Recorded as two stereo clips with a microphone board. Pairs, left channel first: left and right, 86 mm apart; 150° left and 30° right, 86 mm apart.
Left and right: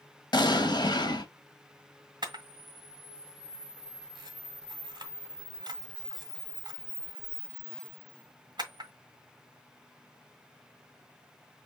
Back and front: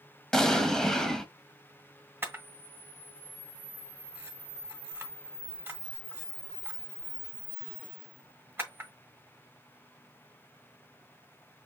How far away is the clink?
I don't hear a clink.